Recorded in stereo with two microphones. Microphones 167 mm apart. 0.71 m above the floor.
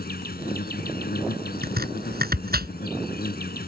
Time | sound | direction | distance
0.0 | an insect | 80° left | ?
1.6 | chopping | 80° right | ?